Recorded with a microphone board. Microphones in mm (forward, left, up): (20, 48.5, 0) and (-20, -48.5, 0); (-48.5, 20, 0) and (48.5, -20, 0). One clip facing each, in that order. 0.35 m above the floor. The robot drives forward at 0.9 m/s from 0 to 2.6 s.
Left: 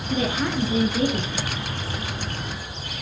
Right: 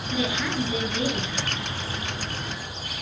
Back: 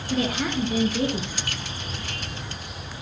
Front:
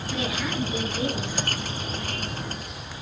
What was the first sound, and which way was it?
A woman speaking, 115° left.